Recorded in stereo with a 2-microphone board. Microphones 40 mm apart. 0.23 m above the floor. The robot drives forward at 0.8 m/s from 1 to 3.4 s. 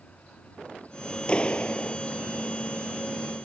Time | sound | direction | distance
1.3 | a clap | 25° left (ahead or behind) | ?